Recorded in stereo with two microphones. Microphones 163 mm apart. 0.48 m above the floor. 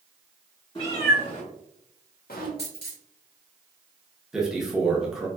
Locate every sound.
0.8 s a cat meowing: 35° left (ahead or behind), 1.4 m; by 2.5 s 65° left (ahead or behind), 0.7 m
2.6 s a dropped coin: 85° left, 1.4 m
4.3 s a man speaking: 5° right (ahead or behind), 0.7 m